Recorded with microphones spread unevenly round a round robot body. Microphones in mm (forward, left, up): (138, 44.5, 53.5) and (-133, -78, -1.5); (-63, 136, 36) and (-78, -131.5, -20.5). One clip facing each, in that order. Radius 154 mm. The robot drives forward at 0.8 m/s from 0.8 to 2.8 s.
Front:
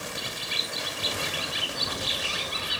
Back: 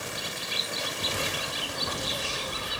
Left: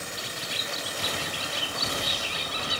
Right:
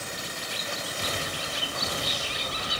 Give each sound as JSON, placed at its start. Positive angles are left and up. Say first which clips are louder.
{"t": 0.2, "sound": "a bird", "louder": "even, even", "azimuth_deg": 50}